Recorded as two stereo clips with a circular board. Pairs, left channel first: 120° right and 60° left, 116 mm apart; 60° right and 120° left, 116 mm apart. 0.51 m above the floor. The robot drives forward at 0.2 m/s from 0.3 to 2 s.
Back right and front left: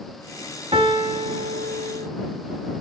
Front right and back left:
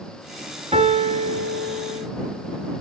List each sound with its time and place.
0.7 s a piano: 95° left, 1.8 m; by 2.1 s 100° left, 1.9 m